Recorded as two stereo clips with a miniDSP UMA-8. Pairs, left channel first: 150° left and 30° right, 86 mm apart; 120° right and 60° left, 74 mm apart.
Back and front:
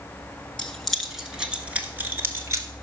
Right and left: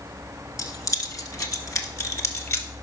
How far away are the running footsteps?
No running footsteps in this recording.